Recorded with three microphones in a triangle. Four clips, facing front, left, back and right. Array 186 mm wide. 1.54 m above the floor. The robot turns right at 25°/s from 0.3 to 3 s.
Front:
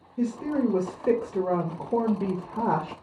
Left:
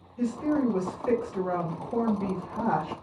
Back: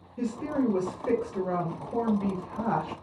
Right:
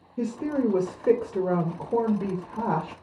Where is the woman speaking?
75° right, 0.7 m; by 2.9 s 10° right, 0.7 m.